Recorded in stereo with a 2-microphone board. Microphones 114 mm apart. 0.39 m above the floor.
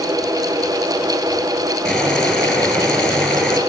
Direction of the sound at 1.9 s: 5° left (ahead or behind).